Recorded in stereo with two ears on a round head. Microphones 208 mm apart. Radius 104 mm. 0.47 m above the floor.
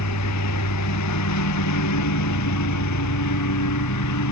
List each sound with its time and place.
0.0 s a lawn mower: 85° left